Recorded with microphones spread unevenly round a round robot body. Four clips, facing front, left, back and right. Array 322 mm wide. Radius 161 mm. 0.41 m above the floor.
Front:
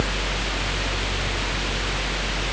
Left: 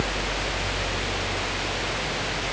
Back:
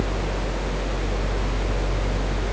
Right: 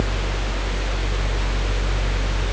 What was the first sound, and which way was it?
Only background noise.